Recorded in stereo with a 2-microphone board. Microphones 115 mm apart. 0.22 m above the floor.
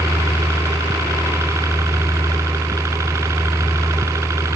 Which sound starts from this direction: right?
A helicopter, at 0.0 s.